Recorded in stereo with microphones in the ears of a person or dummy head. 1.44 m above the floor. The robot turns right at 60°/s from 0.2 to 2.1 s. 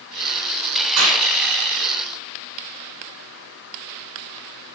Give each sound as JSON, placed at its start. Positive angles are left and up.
{"t": 1.0, "sound": "a clap", "side_deg": -80, "distance_m": 5.5}